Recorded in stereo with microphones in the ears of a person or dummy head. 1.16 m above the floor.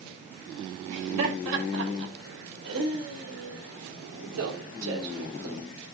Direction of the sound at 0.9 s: 70° right (ahead or behind).